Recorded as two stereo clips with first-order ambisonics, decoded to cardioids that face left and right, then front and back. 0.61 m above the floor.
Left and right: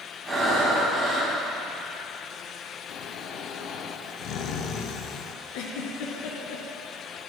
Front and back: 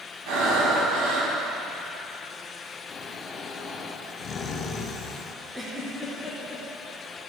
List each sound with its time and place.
0.3 s breathing: 175° right, 3.5 m
2.9 s snoring: 55° left, 1.1 m
5.5 s a giggle: 95° left, 2.5 m